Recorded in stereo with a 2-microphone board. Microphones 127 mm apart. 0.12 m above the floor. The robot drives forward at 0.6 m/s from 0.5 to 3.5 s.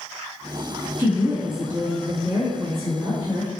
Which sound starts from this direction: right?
A woman speaking, at 1.0 s.